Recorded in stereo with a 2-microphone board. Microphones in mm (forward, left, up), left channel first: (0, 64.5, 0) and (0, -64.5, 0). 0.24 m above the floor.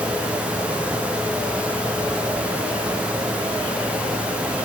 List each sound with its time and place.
Only background noise.